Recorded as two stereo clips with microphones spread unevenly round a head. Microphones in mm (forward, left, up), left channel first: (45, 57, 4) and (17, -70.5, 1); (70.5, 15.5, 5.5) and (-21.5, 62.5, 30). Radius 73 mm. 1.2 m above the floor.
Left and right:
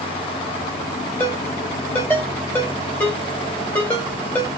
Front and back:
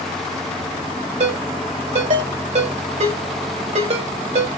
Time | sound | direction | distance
1.2 | a ringtone | 155° left | 3 m